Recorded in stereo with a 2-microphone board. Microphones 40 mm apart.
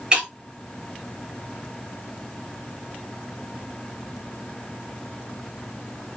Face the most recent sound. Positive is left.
turn(degrees=-20)  # may be behind; listen again after turning